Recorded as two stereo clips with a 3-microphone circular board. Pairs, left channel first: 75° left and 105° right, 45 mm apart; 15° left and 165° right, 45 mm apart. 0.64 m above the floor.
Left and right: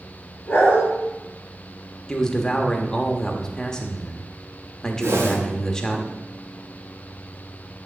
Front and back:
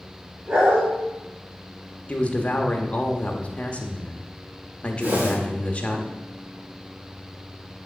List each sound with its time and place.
0.5 s a dog barking: 135° left, 3 m
2.1 s a man speaking: 15° left, 1.0 m
5.0 s a whoosh: 110° right, 2 m